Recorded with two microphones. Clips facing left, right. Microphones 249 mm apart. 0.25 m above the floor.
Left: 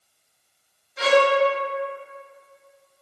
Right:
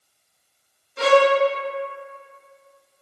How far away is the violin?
About 0.6 m.